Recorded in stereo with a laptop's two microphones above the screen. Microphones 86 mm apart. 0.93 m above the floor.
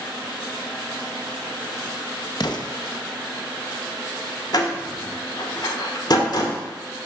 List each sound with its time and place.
2.4 s an explosion: 55° left (ahead or behind), 0.6 m
4.5 s a door slam: 50° left (ahead or behind), 1.4 m